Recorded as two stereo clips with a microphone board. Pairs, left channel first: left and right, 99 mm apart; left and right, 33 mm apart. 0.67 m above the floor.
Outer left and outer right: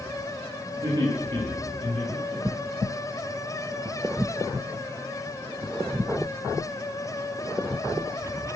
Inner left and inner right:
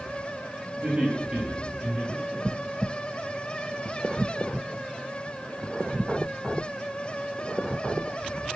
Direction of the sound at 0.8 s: 35° right (ahead or behind).